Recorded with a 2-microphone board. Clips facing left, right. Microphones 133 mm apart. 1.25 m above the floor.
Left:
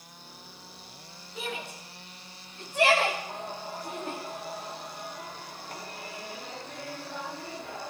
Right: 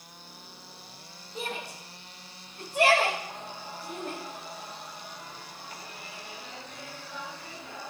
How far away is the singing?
About 3 m.